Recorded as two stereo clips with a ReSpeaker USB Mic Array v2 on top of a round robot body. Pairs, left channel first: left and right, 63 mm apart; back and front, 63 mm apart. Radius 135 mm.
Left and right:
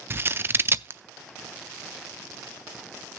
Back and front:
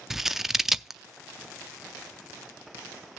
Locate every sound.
0.1 s scissors: 80° right, 0.7 m